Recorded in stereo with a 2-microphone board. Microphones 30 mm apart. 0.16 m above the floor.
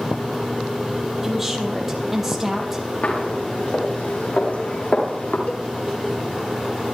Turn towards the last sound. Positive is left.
turn(degrees=70)  # may be behind; listen again after turning